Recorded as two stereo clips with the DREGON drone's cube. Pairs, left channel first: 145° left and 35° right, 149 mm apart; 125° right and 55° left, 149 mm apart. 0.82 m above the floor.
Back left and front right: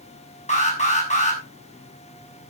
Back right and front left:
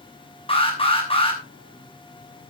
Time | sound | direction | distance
0.5 | an alarm | 175° right | 6 m